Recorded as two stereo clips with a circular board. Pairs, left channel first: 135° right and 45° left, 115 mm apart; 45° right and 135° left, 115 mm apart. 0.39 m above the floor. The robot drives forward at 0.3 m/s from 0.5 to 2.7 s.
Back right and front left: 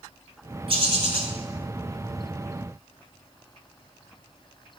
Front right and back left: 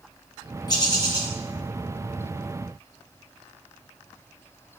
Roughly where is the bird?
Ahead.